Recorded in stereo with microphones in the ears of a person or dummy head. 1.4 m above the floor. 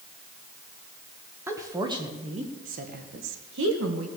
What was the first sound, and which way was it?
A woman speaking, 10° right (ahead or behind).